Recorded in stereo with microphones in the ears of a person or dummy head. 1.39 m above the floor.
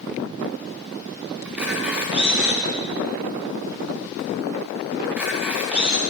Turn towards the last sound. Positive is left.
turn(degrees=-10)  # may be behind; listen again after turning